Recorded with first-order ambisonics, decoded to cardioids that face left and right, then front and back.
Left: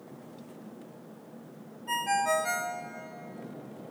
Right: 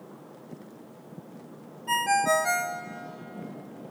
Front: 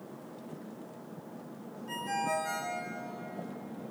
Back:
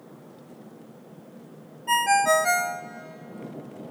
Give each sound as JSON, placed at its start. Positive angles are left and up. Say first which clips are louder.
{"t": 1.9, "sound": "a ringtone", "louder": "right 4 dB, back 13 dB", "azimuth_deg": -165, "distance_m": 0.8}